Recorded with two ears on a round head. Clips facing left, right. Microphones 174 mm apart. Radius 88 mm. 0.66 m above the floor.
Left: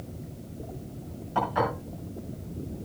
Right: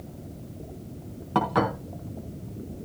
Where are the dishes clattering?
85° right, 5 m.